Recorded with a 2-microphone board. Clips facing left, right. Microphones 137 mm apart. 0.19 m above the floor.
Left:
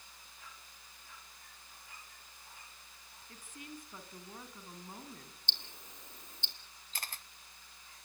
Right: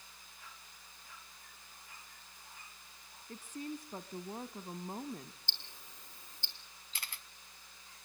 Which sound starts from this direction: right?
A woman speaking, at 3.3 s.